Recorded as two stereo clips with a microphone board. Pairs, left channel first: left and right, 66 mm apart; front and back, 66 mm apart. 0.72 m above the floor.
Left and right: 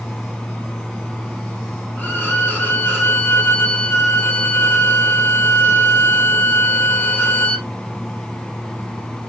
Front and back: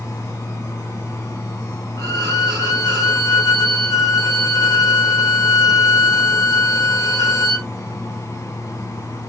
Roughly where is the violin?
Ahead left.